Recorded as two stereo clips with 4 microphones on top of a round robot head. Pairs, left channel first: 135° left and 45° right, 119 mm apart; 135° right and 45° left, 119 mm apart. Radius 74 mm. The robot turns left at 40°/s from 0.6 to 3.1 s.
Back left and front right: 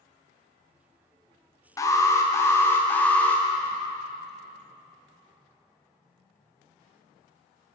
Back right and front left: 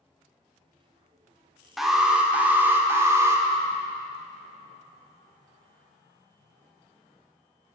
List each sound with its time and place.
1.8 s an alarm: 130° left, 0.9 m; by 3.5 s 75° left, 0.9 m